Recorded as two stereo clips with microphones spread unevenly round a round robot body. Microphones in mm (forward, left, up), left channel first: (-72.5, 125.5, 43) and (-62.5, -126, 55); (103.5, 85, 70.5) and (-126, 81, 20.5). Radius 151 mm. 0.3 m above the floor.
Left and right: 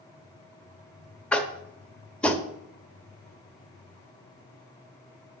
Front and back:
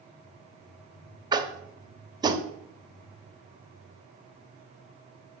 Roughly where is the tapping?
Behind.